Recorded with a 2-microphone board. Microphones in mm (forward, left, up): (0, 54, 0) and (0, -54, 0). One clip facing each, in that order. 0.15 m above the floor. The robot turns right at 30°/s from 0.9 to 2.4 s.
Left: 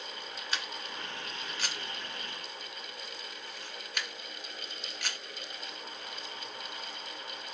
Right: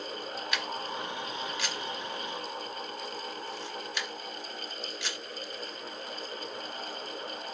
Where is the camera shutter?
35° left (ahead or behind), 2.5 m; by 5.2 s 60° left (ahead or behind), 2.5 m.